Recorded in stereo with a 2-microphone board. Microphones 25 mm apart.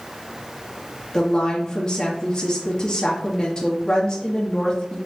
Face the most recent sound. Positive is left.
turn(degrees=30)  # may be behind; listen again after turning